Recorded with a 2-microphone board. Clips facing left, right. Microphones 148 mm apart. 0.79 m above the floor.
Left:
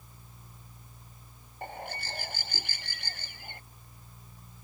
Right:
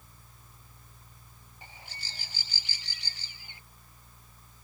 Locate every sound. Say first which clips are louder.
1.6 s a bird: left 13 dB; 55° left (ahead or behind)